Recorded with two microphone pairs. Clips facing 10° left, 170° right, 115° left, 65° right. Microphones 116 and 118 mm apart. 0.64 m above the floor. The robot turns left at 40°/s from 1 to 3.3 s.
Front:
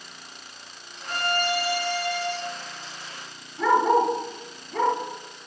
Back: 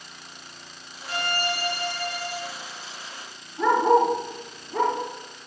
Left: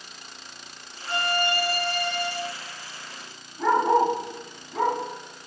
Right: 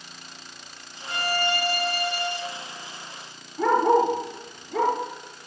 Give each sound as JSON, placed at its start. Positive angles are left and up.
{"t": 1.1, "sound": "a violin", "azimuth_deg": 55, "distance_m": 3.5}
{"t": 3.6, "sound": "a dog barking", "azimuth_deg": -85, "distance_m": 4.5}